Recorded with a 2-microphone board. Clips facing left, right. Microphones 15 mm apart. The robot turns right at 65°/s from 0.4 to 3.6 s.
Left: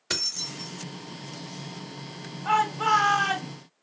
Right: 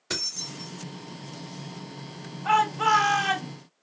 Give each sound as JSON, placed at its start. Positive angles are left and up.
{"t": 0.1, "sound": "keys jangling", "side_deg": 25, "distance_m": 0.6}
{"t": 2.5, "sound": "a shout", "side_deg": -25, "distance_m": 1.0}